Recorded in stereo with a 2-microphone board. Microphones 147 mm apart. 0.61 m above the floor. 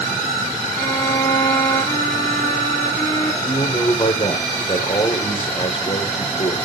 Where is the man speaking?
40° left (ahead or behind), 2.0 m.